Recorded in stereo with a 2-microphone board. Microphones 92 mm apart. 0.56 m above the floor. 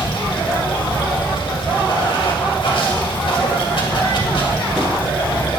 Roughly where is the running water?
Left.